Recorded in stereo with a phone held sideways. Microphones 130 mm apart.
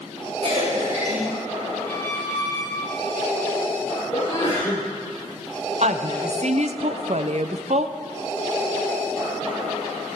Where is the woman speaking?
60° right (ahead or behind), 0.7 m.